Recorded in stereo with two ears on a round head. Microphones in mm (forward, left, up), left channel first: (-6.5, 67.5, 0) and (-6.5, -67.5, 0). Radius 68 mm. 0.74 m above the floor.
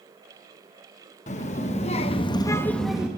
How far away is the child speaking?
About 1.0 m.